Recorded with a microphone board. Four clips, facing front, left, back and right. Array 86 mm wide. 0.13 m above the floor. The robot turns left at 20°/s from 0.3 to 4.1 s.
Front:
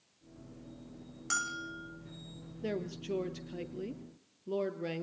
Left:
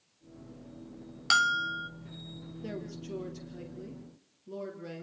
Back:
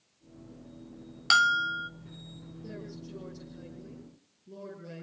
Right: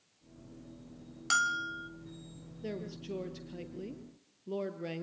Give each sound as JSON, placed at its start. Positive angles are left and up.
{"t": 1.3, "sound": "a bell", "azimuth_deg": 155, "distance_m": 0.7}
{"t": 2.6, "sound": "a woman speaking", "azimuth_deg": -5, "distance_m": 3.0}